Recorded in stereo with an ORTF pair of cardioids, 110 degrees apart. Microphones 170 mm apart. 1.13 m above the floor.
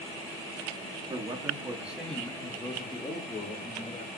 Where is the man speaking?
30° right, 3 m; by 4.1 s 50° left, 4 m.